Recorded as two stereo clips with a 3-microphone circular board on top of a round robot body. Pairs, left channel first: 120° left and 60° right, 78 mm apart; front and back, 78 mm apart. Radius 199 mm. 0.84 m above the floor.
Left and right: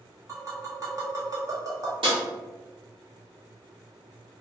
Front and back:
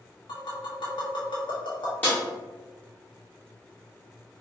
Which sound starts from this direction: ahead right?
A snare drum, at 2.0 s.